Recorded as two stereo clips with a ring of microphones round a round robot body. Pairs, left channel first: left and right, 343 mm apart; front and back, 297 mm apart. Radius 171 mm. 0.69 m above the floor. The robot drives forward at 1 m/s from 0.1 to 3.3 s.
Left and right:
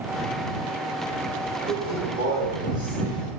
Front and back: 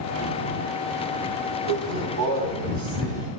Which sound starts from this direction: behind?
A man speaking, at 1.7 s.